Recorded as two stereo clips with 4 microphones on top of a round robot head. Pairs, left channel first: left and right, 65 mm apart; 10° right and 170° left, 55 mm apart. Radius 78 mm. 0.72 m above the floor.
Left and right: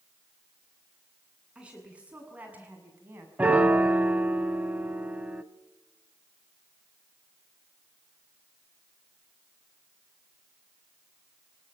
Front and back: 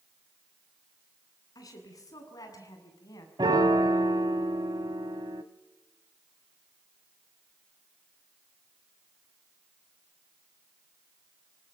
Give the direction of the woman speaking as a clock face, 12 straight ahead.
12 o'clock.